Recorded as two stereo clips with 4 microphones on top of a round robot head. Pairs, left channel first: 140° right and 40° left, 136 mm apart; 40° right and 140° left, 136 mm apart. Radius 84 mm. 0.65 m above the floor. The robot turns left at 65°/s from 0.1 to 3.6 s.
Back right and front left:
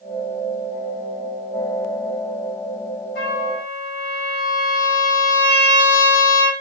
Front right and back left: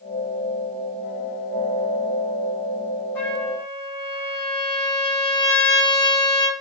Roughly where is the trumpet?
Behind right.